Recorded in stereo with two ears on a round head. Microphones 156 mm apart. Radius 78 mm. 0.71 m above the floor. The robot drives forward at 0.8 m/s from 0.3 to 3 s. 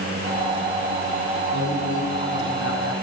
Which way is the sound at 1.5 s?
85° left.